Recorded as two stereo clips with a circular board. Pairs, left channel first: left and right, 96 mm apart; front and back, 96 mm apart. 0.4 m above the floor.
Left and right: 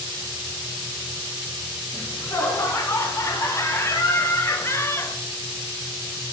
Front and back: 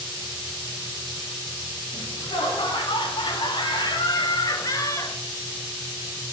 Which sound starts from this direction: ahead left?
Laughter, at 1.9 s.